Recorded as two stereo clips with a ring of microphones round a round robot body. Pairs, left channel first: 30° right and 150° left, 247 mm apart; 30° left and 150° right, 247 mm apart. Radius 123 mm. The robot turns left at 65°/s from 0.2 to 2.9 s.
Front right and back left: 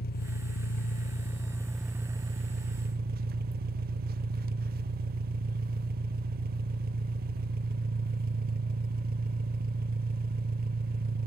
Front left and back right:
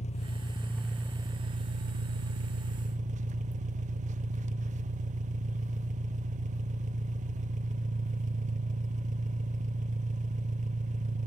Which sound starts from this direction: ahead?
An engine running, at 0.0 s.